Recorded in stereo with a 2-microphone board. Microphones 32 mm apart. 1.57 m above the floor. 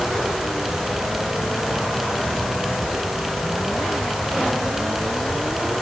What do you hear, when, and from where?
Only background noise.